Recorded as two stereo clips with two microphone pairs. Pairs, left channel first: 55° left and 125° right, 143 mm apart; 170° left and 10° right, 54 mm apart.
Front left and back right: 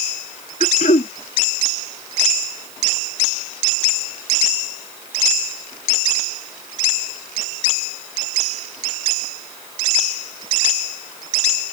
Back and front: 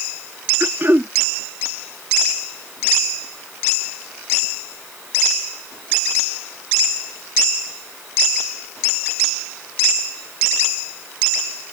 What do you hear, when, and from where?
0.6 s throat clearing: 30° left